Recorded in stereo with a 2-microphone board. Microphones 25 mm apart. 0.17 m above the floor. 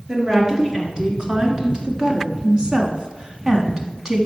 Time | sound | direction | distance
0.1 | a woman speaking | 35° right (ahead or behind) | 2.5 m